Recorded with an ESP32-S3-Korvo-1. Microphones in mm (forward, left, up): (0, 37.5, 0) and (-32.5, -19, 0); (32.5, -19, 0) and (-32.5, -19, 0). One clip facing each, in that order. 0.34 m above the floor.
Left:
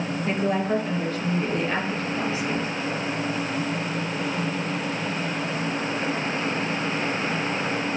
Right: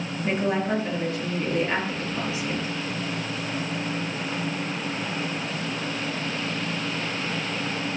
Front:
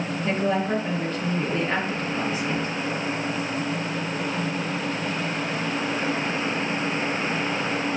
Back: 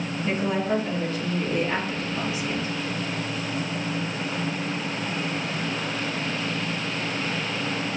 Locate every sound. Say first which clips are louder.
0.2 s a woman speaking: even, front 1 dB; 50° right, 4.5 m